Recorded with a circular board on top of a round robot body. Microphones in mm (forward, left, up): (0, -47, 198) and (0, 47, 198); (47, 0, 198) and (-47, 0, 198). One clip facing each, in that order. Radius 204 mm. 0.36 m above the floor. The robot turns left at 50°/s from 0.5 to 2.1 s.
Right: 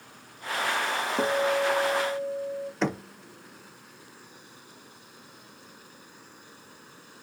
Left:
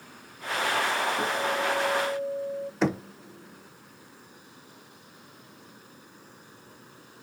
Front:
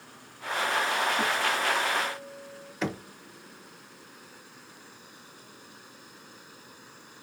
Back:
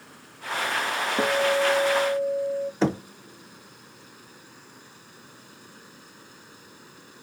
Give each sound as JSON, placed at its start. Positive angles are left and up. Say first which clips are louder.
{"t": 1.2, "sound": "a guitar", "louder": "right 3 dB, back 6 dB", "azimuth_deg": -145, "distance_m": 0.6}
{"t": 2.8, "sound": "knocking", "louder": "left 3 dB, back 6 dB", "azimuth_deg": 175, "distance_m": 0.7}